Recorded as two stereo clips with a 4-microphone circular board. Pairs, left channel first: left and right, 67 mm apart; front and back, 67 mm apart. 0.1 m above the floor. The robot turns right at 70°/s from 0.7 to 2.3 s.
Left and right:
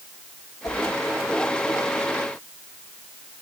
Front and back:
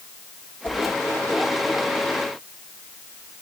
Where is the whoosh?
65° left, 4.5 m; by 0.8 s 75° left, 4.5 m.